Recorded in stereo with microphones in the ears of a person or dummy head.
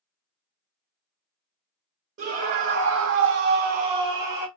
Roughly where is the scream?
Right.